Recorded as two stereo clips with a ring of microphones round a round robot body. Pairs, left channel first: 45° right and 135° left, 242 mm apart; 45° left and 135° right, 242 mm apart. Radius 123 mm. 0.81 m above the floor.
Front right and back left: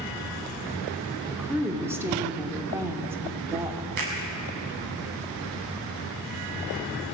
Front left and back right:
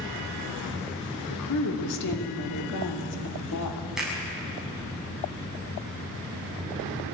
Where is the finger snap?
135° left, 7.5 m.